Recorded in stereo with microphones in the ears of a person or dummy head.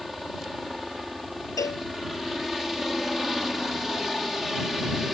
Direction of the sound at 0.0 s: 5° left (ahead or behind).